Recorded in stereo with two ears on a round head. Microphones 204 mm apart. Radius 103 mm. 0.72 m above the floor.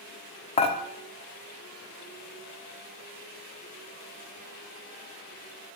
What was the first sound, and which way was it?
Dishes clattering, 25° left (ahead or behind).